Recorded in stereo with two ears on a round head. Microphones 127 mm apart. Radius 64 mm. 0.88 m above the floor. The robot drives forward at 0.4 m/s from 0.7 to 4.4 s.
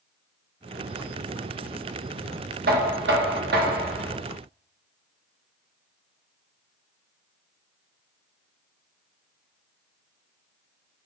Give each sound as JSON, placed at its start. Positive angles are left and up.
{"t": 2.7, "sound": "knocking", "side_deg": -70, "distance_m": 0.8}